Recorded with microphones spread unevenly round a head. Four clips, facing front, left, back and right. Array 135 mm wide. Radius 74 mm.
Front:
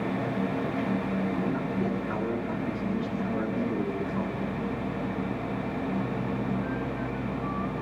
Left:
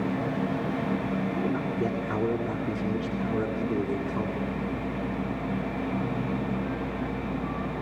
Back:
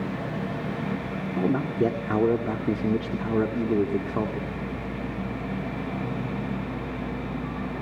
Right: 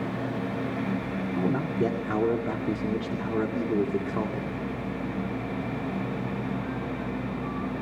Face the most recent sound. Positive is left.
turn(degrees=-160)